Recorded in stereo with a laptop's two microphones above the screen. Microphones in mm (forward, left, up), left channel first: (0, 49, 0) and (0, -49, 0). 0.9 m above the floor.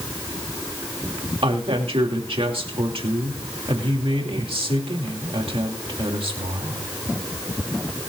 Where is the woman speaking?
70° right (ahead or behind), 2.5 m.